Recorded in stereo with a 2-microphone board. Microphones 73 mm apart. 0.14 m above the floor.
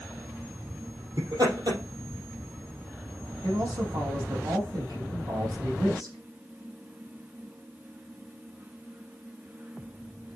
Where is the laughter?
70° right (ahead or behind), 4 m.